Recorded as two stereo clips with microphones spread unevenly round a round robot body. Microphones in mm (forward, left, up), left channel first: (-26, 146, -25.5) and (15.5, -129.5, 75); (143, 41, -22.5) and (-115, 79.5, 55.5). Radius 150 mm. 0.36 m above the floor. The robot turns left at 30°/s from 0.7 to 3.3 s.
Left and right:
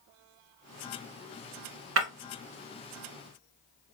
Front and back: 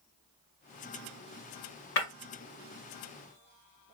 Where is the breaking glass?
35° right, 1.5 m; by 2.1 s 40° right, 1.5 m.